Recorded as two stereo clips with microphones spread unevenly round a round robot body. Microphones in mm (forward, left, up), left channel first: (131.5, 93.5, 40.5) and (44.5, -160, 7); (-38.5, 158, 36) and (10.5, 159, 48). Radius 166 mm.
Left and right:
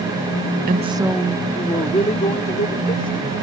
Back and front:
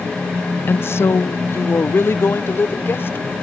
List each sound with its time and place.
0.7 s a woman speaking: 160° right; by 3.3 s 135° left